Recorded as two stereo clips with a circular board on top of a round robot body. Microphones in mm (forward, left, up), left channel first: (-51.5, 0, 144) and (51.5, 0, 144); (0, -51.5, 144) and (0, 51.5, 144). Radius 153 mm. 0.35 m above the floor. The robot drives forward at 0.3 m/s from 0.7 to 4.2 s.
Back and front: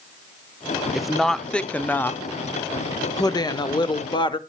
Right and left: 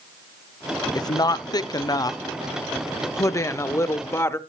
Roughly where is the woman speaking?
Right.